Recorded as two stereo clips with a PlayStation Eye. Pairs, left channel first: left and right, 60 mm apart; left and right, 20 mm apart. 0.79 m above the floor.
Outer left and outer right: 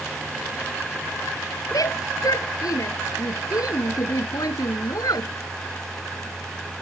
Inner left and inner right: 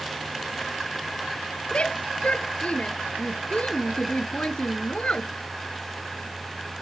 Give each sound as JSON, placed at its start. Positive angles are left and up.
{"t": 1.7, "sound": "a shout", "side_deg": 85}